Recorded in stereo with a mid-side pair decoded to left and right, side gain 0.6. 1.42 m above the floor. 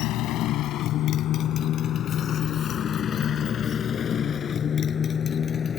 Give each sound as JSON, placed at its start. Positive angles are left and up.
{"t": 0.0, "sound": "a motorcycle", "azimuth_deg": 65}